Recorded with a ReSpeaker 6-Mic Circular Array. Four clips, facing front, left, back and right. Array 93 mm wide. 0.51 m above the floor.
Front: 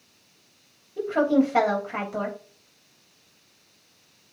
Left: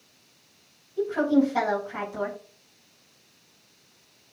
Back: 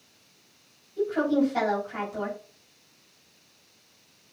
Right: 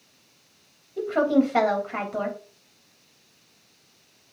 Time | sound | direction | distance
1.0 | a woman speaking | 50° right | 3 m